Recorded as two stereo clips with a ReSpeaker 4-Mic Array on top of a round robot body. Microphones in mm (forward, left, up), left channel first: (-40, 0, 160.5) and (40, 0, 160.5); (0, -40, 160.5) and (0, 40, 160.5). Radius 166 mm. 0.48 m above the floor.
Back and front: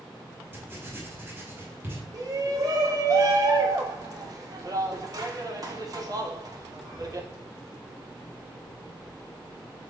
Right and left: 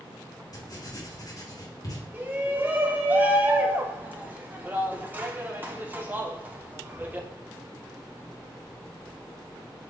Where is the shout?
25° left, 1.9 m.